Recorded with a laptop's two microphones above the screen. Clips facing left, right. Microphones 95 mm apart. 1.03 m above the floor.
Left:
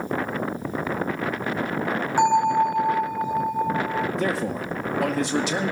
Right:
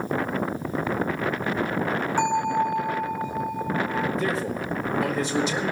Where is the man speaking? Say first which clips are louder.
Left 1 dB; 65° left (ahead or behind), 2 m.